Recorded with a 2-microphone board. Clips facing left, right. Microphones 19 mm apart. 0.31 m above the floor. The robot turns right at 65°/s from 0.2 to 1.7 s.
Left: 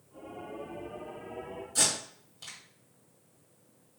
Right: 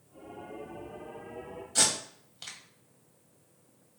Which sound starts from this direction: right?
Tape being pulled, at 1.8 s.